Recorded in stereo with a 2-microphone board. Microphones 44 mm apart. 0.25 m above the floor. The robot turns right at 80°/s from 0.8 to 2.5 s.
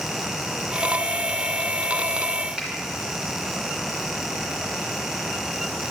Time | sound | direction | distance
2.6 | a finger snap | 15° right (ahead or behind) | 2.5 m